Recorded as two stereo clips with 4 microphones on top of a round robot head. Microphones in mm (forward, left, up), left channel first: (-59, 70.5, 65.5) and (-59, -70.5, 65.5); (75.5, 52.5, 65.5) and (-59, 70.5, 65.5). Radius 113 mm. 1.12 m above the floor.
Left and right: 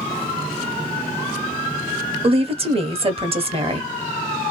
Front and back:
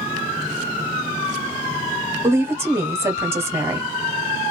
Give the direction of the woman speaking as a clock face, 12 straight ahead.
4 o'clock.